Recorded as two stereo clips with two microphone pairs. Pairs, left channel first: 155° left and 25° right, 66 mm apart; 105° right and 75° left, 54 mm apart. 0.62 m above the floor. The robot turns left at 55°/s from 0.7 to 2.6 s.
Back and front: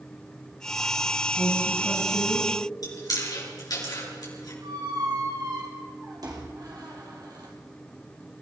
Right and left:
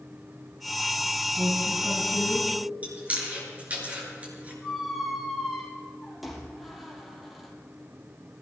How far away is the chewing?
About 5 m.